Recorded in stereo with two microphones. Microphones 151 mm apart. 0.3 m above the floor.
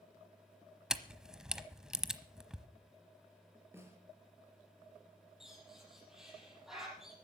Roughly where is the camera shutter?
Centre.